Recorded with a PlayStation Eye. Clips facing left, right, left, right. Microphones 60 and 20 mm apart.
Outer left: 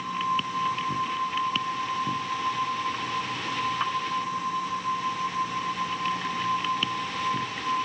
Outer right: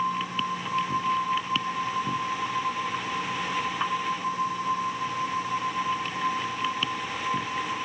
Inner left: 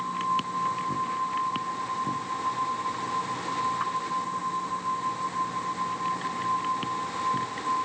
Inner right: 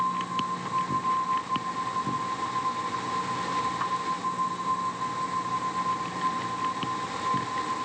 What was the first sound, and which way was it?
Only background noise.